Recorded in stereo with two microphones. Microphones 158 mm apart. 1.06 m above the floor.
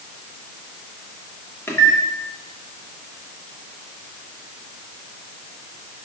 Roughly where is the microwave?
Centre.